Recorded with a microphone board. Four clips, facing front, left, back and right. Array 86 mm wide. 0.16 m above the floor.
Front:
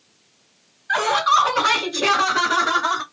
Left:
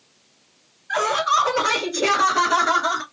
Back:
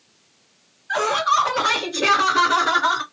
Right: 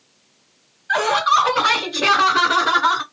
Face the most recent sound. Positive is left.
turn(degrees=-105)